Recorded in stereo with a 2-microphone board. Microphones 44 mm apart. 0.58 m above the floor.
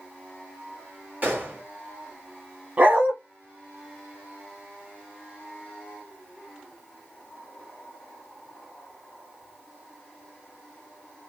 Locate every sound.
1.2 s a gunshot: 45° right (ahead or behind), 2 m
2.8 s a dog barking: 40° right (ahead or behind), 1.1 m